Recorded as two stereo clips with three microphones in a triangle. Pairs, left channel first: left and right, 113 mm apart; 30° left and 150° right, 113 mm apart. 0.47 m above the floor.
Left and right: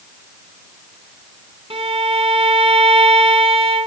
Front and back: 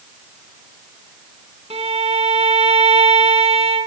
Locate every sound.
1.7 s a violin: 125° right, 1.7 m